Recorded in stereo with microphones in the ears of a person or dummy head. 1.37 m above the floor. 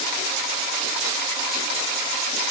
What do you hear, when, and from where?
Only background noise.